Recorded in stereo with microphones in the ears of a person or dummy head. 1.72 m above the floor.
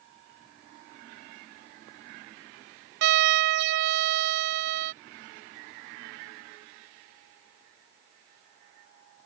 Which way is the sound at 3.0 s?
65° right (ahead or behind).